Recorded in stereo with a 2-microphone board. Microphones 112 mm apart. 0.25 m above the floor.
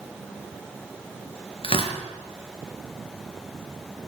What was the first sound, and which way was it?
Tearing paper, 50° left (ahead or behind).